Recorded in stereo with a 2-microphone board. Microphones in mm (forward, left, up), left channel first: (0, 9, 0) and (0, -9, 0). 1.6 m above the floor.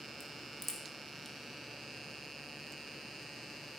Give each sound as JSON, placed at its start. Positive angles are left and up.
{"t": 0.2, "sound": "a crack", "side_deg": 25, "distance_m": 1.3}